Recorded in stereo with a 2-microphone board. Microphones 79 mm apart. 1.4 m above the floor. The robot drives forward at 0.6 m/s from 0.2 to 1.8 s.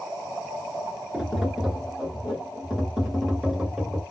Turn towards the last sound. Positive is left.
turn(degrees=-5)  # may be behind; listen again after turning